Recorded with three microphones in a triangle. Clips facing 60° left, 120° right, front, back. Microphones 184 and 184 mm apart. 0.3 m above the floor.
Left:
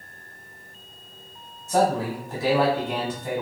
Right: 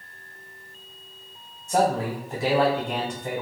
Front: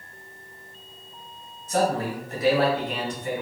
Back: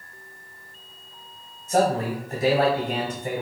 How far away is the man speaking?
About 1.3 m.